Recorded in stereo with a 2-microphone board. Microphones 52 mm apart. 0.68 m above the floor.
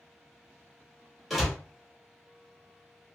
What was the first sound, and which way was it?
A door slam, 5° right (ahead or behind).